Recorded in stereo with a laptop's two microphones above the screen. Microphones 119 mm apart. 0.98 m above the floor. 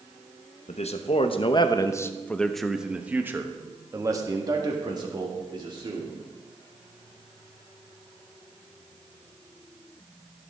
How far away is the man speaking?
About 0.9 m.